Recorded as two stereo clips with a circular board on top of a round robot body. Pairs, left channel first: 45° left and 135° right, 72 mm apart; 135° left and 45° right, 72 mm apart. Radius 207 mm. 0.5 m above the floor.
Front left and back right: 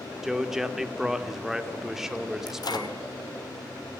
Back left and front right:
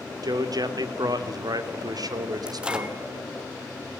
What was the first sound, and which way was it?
A man speaking, 50° right.